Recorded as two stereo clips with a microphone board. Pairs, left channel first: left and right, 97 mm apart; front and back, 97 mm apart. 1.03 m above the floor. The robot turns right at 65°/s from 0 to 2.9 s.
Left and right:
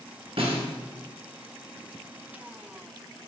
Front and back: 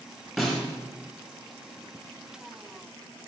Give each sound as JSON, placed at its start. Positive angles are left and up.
{"t": 0.4, "sound": "a snare drum", "azimuth_deg": -95, "distance_m": 1.8}